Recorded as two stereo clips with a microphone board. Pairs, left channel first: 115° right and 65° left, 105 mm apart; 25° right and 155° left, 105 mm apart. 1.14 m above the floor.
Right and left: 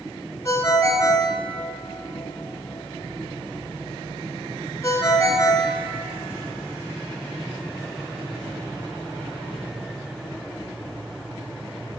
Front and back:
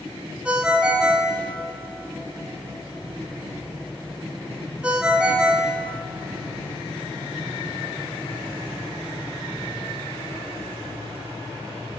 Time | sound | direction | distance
0.5 | a ringtone | 130° right | 0.6 m